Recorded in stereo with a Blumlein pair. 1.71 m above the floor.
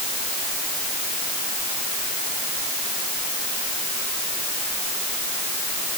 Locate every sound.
Only background noise.